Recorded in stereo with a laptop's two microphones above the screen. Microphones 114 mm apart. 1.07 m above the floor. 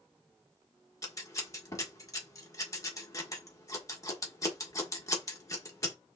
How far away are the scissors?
About 1.3 m.